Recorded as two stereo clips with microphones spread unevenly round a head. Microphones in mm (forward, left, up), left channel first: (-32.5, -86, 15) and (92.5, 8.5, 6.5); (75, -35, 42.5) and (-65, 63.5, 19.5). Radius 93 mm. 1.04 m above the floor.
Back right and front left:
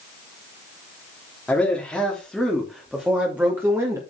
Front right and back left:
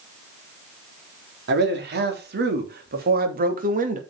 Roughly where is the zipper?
No zipper in this recording.